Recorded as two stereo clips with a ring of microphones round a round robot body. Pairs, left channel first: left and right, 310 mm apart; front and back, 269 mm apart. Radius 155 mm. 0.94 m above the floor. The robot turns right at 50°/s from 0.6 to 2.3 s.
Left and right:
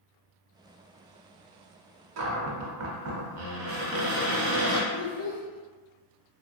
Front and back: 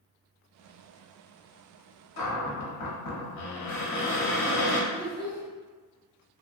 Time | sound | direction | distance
2.2 | a cupboard door | 45° right | 0.6 m
4.9 | a child speaking | 130° right | 1.1 m